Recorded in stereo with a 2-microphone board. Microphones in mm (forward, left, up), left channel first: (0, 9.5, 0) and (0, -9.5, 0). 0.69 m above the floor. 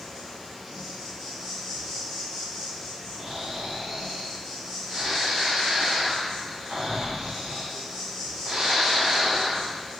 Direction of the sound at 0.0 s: 30° right (ahead or behind).